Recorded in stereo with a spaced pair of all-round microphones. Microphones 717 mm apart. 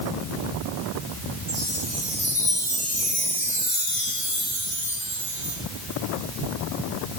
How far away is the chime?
About 9 m.